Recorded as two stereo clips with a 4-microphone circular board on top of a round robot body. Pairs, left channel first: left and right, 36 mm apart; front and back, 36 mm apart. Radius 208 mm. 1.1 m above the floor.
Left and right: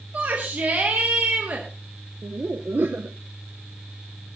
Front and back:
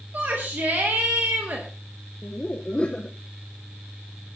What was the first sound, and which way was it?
A shout, 140° right.